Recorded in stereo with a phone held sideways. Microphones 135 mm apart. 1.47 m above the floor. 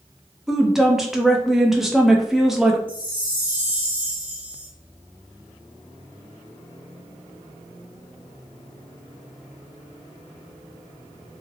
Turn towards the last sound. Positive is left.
turn(degrees=40)  # may be behind; listen again after turning